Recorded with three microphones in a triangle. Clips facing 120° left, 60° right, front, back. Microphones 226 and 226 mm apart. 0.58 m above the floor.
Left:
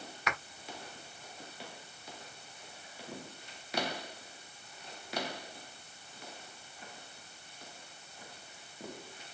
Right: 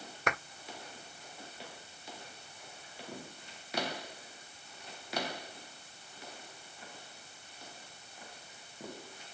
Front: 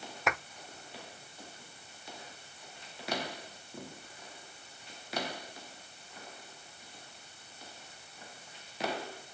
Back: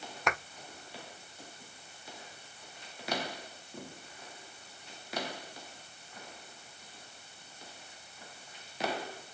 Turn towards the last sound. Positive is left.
turn(degrees=-90)